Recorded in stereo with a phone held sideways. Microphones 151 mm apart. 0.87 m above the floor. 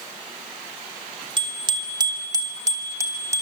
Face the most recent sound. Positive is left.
turn(degrees=-20)  # may be behind; listen again after turning